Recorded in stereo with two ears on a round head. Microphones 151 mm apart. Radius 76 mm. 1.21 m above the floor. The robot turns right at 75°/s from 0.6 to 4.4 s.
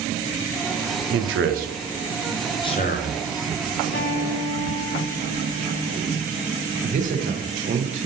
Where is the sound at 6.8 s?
45° right (ahead or behind), 0.7 m.